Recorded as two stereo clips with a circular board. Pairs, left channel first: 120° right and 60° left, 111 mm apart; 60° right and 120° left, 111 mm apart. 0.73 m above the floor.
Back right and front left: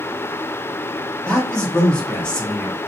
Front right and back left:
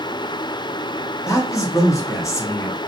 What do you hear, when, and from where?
1.3 s a man speaking: 45° right, 0.9 m